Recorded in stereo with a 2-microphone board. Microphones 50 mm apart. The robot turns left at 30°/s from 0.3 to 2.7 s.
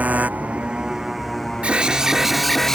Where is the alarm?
155° right; by 2.8 s 175° left.